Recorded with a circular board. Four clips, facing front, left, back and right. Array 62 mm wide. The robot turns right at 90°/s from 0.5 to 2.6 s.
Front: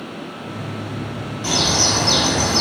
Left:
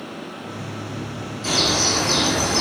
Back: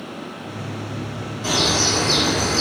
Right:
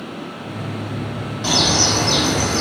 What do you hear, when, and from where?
1.4 s a bird: 85° right, 2.5 m; by 2.6 s 15° left, 2.5 m